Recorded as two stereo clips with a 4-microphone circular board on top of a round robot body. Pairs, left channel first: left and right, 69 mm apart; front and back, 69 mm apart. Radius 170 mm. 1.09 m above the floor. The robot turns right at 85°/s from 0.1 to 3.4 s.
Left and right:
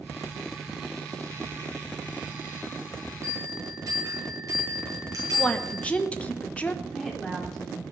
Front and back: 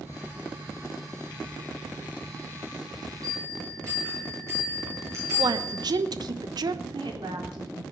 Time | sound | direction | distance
3.2 | a bell | 145° right | 8.5 m
5.4 | a woman speaking | 160° left | 1.4 m
6.8 | a woman speaking | 175° left | 3.5 m